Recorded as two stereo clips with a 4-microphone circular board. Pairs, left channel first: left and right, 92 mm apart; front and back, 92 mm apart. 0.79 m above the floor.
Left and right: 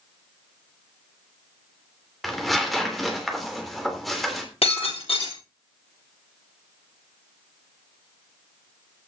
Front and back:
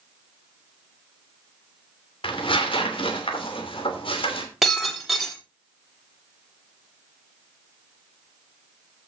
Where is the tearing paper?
Straight ahead, 3 m.